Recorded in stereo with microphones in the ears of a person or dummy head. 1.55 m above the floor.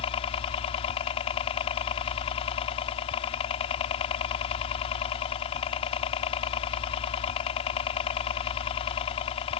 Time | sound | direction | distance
0.0 | a helicopter | 30° left (ahead or behind) | ?